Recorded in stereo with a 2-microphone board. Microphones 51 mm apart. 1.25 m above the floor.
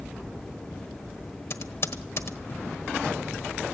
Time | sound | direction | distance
1.5 | typing on a keyboard | 55° left (ahead or behind) | 1.3 m